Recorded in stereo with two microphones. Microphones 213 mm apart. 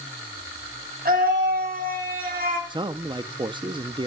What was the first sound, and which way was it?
A scream, 40° right (ahead or behind).